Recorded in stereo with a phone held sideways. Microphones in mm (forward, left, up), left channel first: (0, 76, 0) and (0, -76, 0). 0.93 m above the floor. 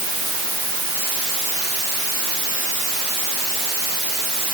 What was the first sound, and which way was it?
Only background noise.